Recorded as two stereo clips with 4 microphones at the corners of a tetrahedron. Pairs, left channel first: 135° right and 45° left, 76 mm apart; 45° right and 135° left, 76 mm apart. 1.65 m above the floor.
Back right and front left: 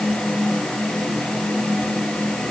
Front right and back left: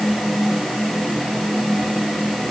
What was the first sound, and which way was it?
Only background noise.